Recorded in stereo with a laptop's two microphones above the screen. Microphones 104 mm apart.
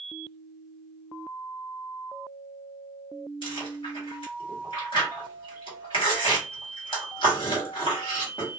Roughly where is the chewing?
Left.